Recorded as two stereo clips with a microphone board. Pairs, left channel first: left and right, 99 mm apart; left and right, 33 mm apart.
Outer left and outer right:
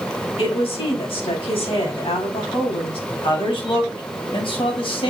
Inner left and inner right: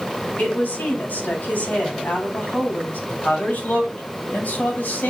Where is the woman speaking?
75° left (ahead or behind), 4.5 m.